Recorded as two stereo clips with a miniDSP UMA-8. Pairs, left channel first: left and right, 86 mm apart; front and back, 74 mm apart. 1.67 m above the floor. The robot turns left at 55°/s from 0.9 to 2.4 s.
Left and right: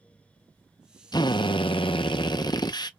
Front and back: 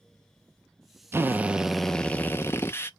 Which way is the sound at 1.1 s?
125° left.